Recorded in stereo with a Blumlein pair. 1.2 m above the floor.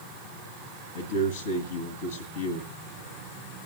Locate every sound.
0.9 s a man speaking: 65° left, 1.9 m